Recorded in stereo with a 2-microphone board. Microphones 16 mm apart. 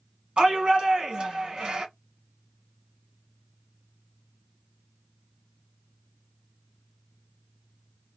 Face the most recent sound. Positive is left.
turn(degrees=-70)  # may be behind; listen again after turning